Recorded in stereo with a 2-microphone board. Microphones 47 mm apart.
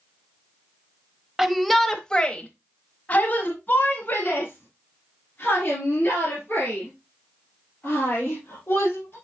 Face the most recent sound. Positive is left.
turn(degrees=45)  # may be behind; listen again after turning